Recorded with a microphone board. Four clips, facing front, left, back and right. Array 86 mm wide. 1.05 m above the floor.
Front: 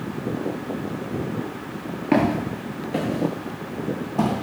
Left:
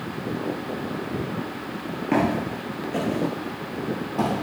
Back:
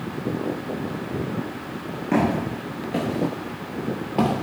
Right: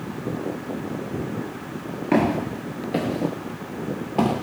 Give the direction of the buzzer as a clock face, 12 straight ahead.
I don't hear a buzzer.